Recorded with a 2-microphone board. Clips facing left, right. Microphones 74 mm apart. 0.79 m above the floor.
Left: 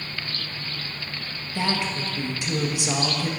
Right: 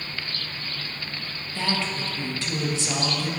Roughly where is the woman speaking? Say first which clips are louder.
Left 2 dB; centre.